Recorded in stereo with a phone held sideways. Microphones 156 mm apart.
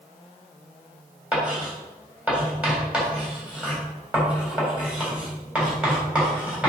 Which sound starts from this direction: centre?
Writing, at 1.3 s.